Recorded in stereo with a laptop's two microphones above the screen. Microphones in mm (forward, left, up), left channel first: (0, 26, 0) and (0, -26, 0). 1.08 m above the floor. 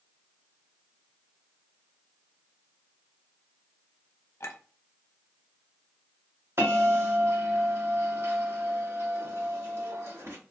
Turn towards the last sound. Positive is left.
turn(degrees=-55)  # may be behind; listen again after turning